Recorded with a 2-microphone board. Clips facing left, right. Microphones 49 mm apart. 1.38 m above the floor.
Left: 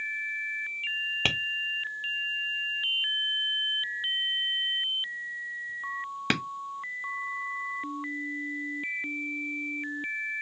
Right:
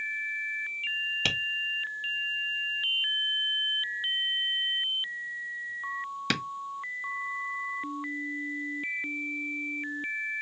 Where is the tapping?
30° left (ahead or behind), 1.4 m.